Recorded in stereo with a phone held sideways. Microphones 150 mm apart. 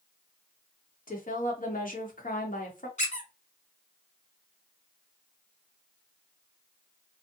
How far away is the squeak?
About 0.7 m.